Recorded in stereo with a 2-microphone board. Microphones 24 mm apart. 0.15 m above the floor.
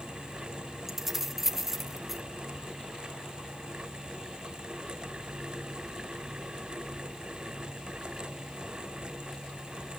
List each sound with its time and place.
0.9 s keys jangling: 15° right (ahead or behind), 0.9 m